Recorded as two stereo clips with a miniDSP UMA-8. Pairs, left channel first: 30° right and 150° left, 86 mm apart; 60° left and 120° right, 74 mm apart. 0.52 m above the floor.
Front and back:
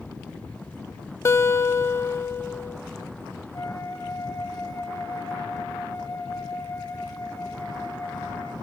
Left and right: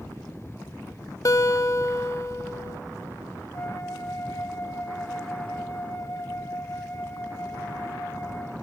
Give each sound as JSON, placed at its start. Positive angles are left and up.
{"t": 1.2, "sound": "a guitar", "azimuth_deg": 25, "distance_m": 0.5}
{"t": 3.5, "sound": "a flute", "azimuth_deg": 15, "distance_m": 1.6}